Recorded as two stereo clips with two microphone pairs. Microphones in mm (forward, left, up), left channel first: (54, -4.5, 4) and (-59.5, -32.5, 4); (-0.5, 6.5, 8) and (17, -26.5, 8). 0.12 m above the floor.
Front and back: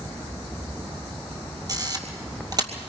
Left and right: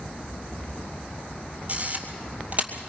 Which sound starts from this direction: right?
A camera shutter, at 1.7 s.